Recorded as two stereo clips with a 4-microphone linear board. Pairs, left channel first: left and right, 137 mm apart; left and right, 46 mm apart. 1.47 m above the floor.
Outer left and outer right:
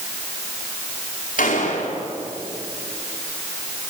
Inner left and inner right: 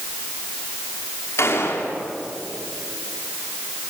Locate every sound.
1.4 s a gunshot: 75° left (ahead or behind), 4.5 m